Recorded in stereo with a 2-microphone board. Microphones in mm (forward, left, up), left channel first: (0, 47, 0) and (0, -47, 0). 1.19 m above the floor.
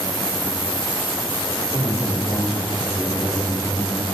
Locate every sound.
1.7 s a man speaking: 10° left (ahead or behind), 3 m; by 4.0 s 25° left (ahead or behind), 2 m